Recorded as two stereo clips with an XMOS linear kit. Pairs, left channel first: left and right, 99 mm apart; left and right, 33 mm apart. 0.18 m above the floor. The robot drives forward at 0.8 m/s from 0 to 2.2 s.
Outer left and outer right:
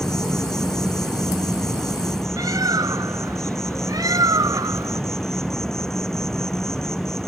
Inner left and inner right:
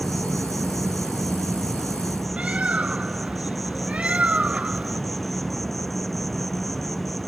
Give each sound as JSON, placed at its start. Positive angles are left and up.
{"t": 0.0, "sound": "an insect", "side_deg": 5}
{"t": 2.4, "sound": "a bird", "side_deg": -40}